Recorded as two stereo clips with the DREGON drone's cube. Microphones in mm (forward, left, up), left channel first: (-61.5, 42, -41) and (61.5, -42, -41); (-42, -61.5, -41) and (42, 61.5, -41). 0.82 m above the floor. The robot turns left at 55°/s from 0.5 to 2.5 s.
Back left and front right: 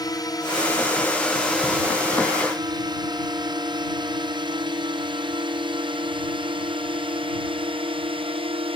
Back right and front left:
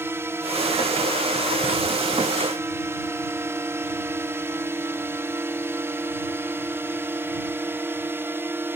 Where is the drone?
115° left; by 8.8 s 10° right.